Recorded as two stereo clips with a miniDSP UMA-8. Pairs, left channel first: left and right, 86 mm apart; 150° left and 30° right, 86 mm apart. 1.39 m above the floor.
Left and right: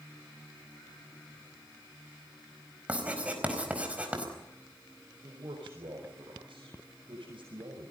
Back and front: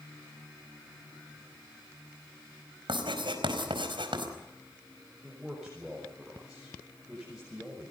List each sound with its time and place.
2.9 s writing: 15° right, 4.5 m
5.2 s a man speaking: 110° right, 5.5 m